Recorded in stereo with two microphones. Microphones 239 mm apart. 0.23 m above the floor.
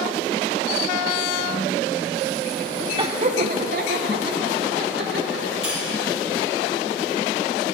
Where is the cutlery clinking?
55° left (ahead or behind), 5 m.